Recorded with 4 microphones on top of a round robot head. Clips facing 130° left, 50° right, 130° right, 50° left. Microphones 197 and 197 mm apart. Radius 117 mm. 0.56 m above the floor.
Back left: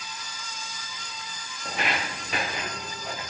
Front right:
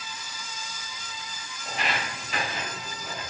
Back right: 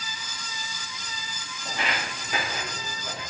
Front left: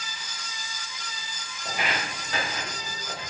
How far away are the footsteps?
About 0.6 m.